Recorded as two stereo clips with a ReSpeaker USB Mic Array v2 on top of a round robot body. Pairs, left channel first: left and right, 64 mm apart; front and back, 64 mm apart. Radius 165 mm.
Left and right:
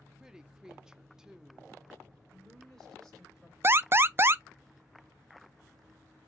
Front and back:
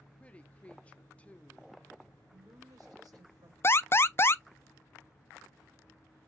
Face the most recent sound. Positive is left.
turn(degrees=-45)